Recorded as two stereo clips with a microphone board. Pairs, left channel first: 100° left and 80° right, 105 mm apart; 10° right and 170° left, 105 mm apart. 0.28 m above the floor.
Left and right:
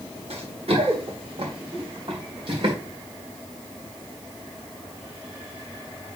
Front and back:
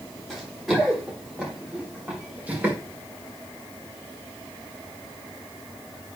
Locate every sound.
0.3 s running footsteps: 100° right, 4.5 m; by 2.8 s 115° right, 5 m